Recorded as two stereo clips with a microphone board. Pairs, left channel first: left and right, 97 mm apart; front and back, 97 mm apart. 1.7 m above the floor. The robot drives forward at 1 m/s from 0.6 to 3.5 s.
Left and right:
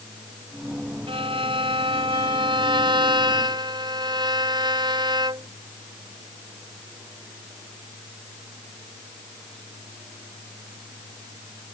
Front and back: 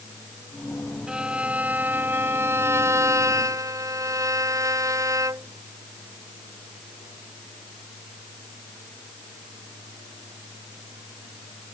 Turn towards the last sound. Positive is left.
turn(degrees=-125)